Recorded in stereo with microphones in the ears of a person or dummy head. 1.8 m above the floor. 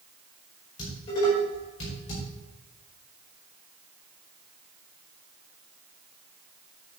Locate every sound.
0.8 s dishes clattering: 40° left (ahead or behind), 5 m